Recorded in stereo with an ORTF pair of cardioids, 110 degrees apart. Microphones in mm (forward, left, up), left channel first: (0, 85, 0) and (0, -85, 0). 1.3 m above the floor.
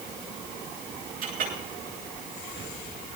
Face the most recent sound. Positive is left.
turn(degrees=-55)